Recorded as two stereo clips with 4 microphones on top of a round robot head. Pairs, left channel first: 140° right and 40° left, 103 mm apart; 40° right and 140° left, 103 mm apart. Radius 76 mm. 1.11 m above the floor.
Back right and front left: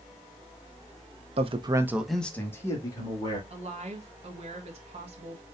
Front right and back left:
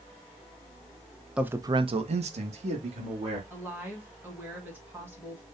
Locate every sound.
1.4 s a man speaking: 55° left, 1.0 m; by 3.4 s 165° left, 2.5 m
3.5 s a woman speaking: 65° left, 1.4 m